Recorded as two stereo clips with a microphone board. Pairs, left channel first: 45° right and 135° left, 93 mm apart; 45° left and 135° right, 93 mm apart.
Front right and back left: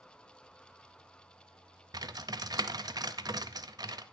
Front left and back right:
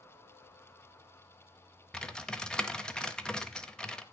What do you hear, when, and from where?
1.9 s typing on a keyboard: 120° left, 0.7 m